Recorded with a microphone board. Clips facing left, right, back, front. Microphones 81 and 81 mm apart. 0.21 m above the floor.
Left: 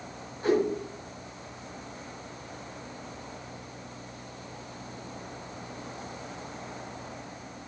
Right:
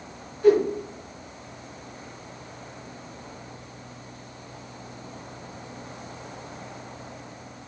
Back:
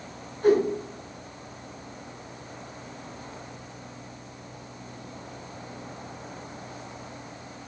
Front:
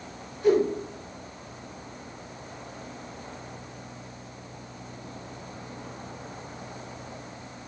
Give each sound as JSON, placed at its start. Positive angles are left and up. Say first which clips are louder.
{"t": 0.4, "sound": "a whoosh", "louder": "right 7 dB, back 1 dB", "azimuth_deg": 150, "distance_m": 3.0}